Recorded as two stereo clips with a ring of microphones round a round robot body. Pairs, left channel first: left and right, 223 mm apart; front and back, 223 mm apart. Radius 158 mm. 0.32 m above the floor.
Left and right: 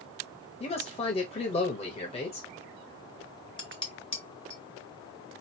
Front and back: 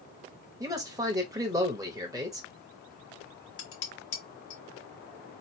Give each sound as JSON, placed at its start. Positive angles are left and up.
{"t": 0.6, "sound": "a man speaking", "azimuth_deg": 120, "distance_m": 1.2}
{"t": 3.6, "sound": "dishes clattering", "azimuth_deg": 20, "distance_m": 1.9}